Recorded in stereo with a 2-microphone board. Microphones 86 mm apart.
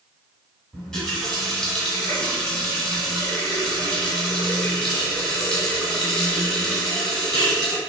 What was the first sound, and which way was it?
A running tap, 10° left (ahead or behind).